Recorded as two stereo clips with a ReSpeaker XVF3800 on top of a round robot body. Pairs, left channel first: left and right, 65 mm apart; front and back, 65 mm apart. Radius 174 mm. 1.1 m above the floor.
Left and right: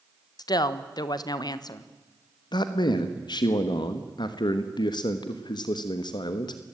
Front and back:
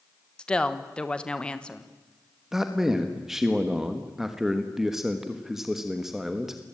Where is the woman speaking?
75° left, 1.4 m.